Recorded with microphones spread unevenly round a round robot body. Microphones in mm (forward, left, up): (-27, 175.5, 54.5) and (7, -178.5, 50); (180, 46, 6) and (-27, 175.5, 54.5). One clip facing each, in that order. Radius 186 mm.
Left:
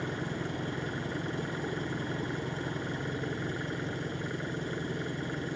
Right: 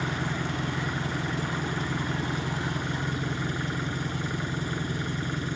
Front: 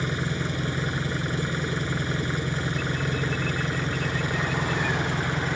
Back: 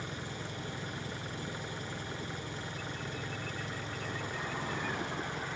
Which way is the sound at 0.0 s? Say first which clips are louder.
Right 3 dB, front 13 dB; 20° right.